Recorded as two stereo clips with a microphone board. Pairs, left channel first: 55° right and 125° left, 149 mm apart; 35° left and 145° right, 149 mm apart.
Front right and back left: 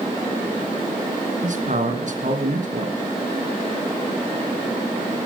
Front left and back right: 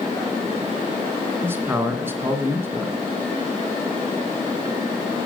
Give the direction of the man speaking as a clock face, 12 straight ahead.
7 o'clock.